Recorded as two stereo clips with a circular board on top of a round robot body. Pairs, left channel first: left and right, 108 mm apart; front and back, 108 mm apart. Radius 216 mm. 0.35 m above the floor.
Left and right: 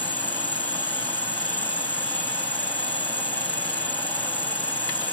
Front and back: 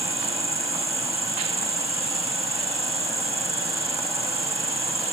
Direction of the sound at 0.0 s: 165° left.